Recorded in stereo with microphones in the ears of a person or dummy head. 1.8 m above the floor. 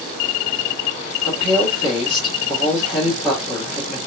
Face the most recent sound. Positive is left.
turn(degrees=0)  # may be behind; listen again after turning